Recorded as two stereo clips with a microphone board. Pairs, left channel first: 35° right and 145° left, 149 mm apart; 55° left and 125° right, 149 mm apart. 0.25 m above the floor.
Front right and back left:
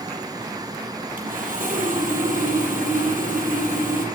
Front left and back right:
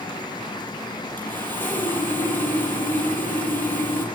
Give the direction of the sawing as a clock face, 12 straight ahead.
8 o'clock.